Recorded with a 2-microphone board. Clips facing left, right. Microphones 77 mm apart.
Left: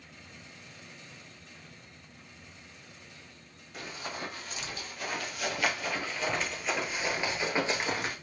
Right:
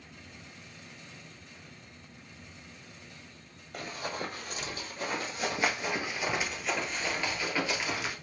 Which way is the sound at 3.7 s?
50° right (ahead or behind).